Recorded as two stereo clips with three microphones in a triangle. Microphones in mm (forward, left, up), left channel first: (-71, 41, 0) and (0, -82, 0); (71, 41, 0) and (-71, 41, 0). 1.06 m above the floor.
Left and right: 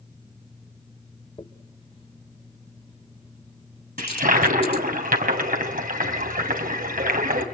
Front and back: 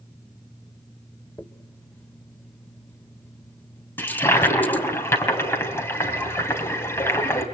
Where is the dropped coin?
75° left, 1.3 m.